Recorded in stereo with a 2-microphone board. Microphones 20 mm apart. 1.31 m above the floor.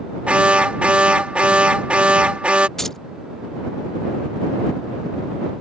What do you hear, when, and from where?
0.3 s an alarm: 75° right (ahead or behind)
2.8 s keys jangling: 15° left (ahead or behind)